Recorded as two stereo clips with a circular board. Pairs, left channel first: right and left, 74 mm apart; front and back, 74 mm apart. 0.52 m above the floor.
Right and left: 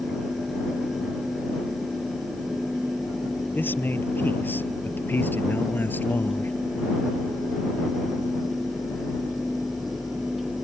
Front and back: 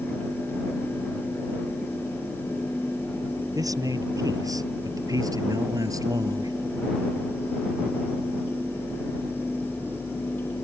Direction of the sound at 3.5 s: 150° right.